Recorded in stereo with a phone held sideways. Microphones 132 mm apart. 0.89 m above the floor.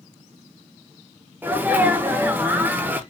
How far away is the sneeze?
About 0.6 m.